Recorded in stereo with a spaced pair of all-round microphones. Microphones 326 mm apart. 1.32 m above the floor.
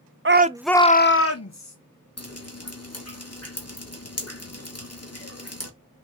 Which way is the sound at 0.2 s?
40° right (ahead or behind).